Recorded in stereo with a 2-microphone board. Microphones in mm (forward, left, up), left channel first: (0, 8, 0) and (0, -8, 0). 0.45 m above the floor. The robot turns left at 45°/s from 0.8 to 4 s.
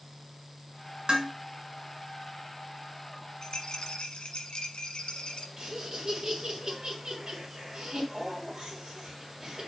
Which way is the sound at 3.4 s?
35° left (ahead or behind).